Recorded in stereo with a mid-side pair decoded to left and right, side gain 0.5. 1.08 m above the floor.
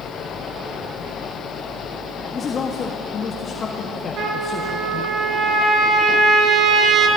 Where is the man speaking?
40° left, 1.7 m.